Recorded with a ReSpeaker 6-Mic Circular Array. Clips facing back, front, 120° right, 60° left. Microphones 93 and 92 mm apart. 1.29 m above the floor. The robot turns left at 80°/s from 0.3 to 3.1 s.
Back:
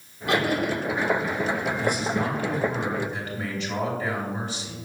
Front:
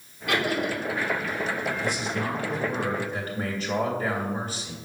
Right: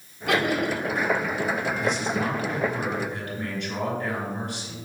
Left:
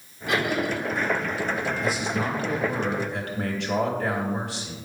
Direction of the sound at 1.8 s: 150° left.